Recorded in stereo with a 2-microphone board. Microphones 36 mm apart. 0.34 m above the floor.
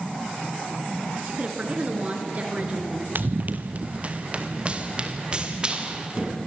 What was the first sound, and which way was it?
A woman speaking, 35° right (ahead or behind).